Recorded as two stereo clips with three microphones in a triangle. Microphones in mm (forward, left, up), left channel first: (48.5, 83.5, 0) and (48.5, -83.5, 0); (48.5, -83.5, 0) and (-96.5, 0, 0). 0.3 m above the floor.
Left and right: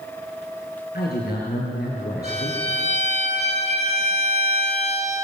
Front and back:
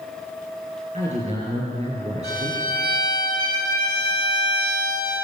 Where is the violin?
135° left, 3 m.